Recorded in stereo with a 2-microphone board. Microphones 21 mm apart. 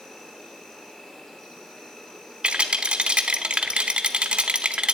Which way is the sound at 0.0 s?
30° left (ahead or behind).